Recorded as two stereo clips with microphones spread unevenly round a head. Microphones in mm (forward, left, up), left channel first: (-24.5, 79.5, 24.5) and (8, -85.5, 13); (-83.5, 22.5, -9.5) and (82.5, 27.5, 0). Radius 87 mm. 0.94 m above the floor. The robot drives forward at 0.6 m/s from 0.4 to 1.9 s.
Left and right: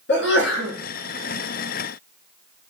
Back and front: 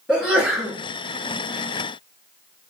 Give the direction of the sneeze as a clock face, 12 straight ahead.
9 o'clock.